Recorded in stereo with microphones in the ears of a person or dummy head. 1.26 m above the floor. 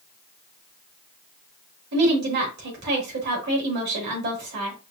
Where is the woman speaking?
55° right (ahead or behind), 1.8 m.